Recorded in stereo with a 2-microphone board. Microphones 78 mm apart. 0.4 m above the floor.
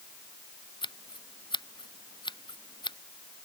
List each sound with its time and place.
0.8 s scissors: 80° left